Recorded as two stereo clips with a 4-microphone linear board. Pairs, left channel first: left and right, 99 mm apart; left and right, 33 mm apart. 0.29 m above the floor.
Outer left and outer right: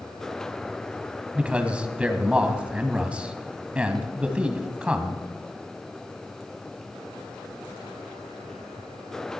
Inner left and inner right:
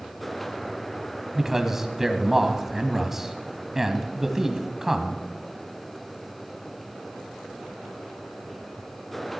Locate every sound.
1.4 s a man speaking: 15° right (ahead or behind), 1.9 m